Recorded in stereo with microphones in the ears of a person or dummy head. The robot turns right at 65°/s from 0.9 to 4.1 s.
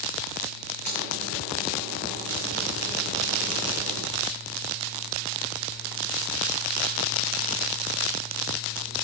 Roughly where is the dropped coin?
Left.